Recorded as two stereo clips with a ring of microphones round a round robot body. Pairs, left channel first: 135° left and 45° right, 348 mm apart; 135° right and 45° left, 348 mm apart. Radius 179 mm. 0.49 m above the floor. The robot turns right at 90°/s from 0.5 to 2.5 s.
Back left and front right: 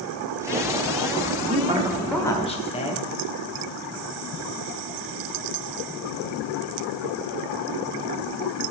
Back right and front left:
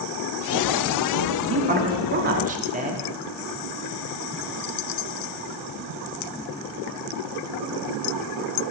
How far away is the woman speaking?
About 0.9 m.